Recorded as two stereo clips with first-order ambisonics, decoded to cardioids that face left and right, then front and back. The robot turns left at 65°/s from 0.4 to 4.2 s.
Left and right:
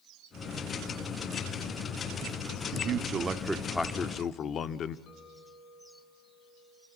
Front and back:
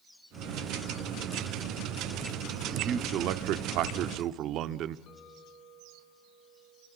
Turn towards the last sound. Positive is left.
turn(degrees=50)